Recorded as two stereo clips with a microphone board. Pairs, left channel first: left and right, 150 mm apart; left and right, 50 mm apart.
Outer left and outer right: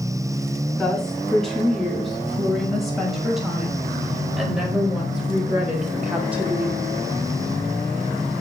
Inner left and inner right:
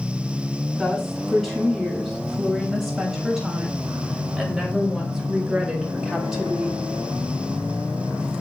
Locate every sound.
0.7 s a woman speaking: centre (ahead or behind), 7 m; by 6.9 s 10° right (ahead or behind), 4 m